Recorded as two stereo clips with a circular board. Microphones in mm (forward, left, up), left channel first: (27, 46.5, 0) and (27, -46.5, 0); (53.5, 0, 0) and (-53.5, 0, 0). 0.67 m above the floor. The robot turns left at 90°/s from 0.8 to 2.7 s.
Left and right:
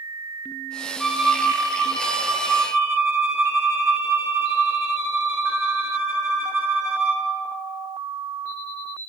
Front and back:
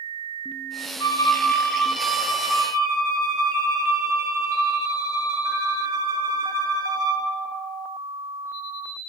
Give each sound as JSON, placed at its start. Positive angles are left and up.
{"t": 1.0, "sound": "a violin", "azimuth_deg": 15, "distance_m": 1.0}